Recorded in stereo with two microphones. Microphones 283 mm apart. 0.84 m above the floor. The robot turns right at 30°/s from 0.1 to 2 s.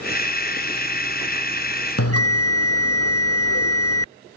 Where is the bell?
55° left (ahead or behind).